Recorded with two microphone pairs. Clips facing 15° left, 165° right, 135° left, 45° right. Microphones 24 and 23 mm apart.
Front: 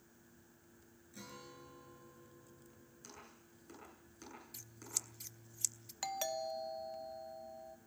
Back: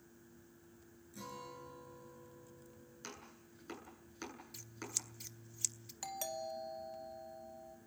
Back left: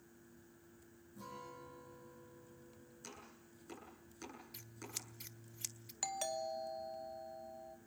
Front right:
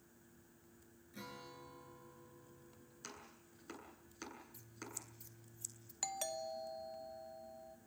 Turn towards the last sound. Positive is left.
turn(degrees=60)